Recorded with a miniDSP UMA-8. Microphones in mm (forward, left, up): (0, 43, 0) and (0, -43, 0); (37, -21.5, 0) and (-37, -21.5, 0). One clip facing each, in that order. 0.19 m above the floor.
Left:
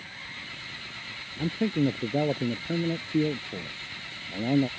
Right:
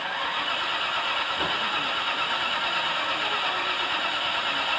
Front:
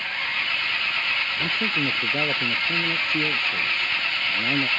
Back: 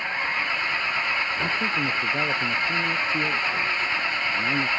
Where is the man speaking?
80° left.